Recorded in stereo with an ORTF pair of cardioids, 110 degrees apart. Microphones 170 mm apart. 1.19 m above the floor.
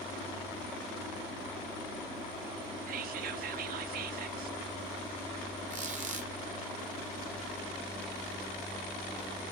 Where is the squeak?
45° right, 0.9 m.